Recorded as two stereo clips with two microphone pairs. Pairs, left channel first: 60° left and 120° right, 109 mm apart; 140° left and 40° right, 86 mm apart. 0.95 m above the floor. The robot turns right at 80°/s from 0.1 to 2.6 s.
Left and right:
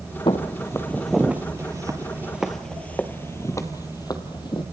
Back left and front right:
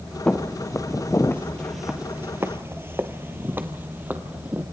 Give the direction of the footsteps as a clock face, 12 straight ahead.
10 o'clock.